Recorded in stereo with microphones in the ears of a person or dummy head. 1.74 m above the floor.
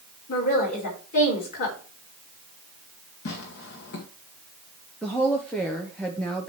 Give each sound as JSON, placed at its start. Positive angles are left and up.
{"t": 0.3, "sound": "a woman speaking", "side_deg": 50, "distance_m": 4.0}
{"t": 3.2, "sound": "tearing paper", "side_deg": 65, "distance_m": 1.6}
{"t": 5.0, "sound": "a woman speaking", "side_deg": 5, "distance_m": 1.1}